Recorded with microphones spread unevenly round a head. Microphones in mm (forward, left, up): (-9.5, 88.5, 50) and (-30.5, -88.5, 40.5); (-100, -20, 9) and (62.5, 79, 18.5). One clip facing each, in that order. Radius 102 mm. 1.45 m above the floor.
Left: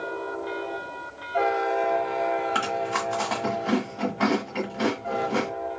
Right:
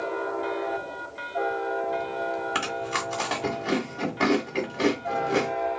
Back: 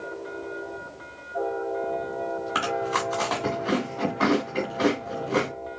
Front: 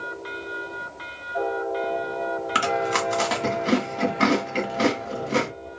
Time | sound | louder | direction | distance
2.5 | chewing | left 3 dB, front 4 dB | 20° right | 1.8 m